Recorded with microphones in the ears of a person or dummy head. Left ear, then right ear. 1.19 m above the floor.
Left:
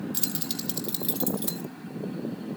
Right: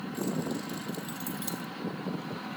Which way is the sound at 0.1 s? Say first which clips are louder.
Even; 55° left (ahead or behind).